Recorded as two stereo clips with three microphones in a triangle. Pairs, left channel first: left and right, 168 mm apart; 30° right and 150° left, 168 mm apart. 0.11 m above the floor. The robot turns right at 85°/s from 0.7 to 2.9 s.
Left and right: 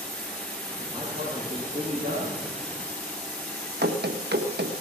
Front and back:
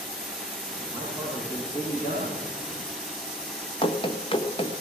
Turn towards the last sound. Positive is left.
turn(degrees=-90)